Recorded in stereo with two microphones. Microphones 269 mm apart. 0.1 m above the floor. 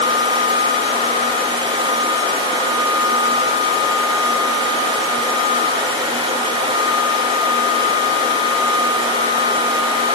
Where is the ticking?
I don't hear ticking.